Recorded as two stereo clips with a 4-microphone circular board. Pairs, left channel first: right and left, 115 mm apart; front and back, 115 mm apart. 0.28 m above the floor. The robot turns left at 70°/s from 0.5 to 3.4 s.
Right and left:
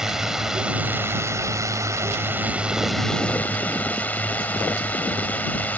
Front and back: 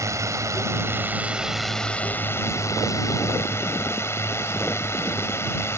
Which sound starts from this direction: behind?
A drone, at 0.0 s.